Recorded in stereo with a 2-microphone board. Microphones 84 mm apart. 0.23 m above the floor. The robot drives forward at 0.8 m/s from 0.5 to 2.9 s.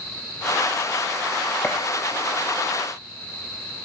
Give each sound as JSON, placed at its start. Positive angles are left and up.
{"t": 1.6, "sound": "a gunshot", "side_deg": 25, "distance_m": 4.5}